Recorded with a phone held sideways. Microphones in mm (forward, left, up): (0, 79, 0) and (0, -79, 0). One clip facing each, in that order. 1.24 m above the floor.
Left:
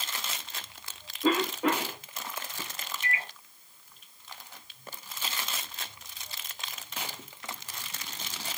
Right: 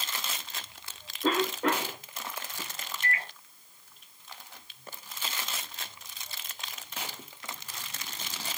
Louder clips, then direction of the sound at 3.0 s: Right 2 dB; 15° left (ahead or behind).